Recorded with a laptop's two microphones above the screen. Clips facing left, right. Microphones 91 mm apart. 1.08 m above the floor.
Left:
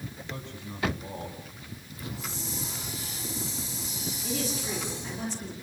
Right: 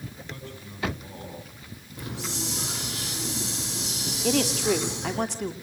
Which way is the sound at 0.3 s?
20° left (ahead or behind).